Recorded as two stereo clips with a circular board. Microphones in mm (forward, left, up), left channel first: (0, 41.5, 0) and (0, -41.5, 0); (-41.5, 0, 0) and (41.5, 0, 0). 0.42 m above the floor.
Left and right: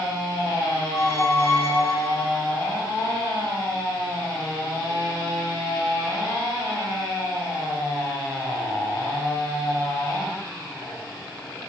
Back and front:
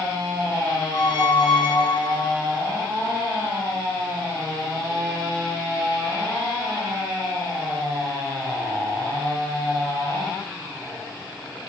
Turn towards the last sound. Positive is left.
turn(degrees=150)